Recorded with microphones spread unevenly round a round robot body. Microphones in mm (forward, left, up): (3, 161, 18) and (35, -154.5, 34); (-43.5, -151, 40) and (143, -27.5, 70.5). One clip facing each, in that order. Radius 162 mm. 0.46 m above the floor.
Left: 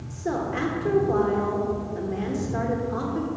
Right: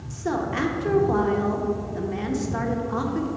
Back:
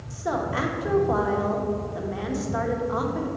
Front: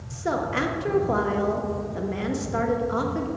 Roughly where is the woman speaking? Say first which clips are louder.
Right 1 dB, front 1 dB; ahead.